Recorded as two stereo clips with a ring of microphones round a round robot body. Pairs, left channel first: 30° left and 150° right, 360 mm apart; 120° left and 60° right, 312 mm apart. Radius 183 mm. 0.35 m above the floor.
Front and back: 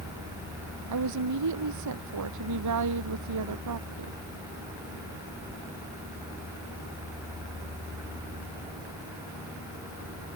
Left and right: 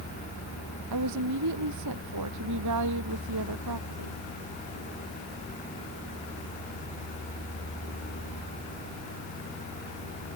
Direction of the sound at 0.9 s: 105° right.